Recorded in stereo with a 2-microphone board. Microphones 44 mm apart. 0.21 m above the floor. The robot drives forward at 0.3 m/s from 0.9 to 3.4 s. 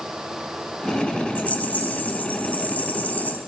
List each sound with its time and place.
1.4 s a rattle: 40° left (ahead or behind), 1.1 m